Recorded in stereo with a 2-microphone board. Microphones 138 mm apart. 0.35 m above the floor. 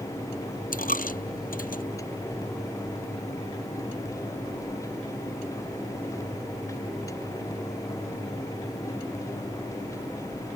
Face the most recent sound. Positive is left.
turn(degrees=85)